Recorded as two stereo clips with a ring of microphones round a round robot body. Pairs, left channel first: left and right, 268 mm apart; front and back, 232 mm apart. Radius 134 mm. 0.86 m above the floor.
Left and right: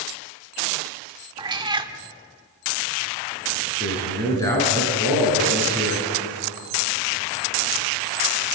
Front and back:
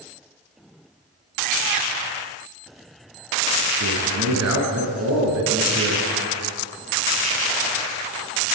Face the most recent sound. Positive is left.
turn(degrees=170)